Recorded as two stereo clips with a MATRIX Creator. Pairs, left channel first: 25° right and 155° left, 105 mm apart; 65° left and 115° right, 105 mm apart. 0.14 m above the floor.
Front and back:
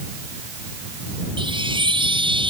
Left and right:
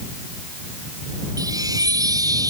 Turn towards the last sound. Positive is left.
turn(degrees=-165)